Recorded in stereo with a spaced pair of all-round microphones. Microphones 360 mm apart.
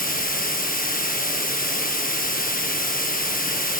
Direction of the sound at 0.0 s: 25° left (ahead or behind).